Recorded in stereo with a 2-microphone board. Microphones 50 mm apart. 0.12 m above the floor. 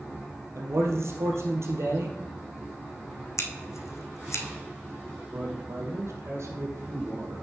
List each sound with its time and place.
0.6 s a man speaking: 65° right (ahead or behind), 2.5 m
3.4 s scissors: 85° left, 1.1 m
5.3 s a man speaking: 65° right (ahead or behind), 3 m